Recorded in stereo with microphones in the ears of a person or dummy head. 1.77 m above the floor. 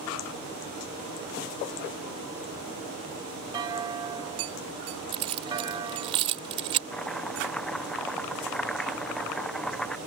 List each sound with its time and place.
3.5 s a clunk: 25° right (ahead or behind)
5.1 s keys jangling: 35° right (ahead or behind)
6.9 s chopping: 10° left (ahead or behind)